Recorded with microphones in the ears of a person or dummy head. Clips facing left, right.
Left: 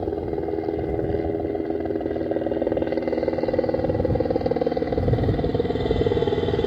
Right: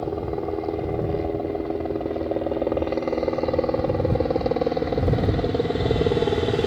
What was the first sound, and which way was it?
A helicopter, 10° left (ahead or behind).